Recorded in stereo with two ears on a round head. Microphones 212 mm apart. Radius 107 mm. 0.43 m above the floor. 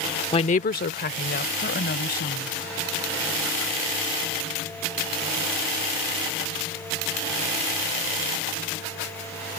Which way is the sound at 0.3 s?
20° left (ahead or behind).